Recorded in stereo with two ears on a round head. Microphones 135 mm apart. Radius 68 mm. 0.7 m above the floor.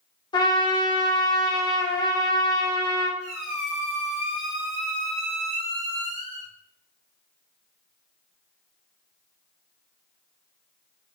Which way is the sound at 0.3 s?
30° left (ahead or behind).